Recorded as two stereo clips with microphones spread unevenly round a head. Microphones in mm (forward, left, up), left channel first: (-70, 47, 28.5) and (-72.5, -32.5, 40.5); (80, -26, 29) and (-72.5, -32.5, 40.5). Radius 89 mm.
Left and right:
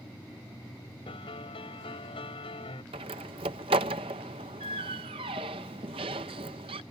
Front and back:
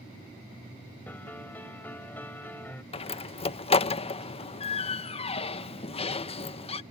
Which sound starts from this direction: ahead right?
A door slam, at 2.9 s.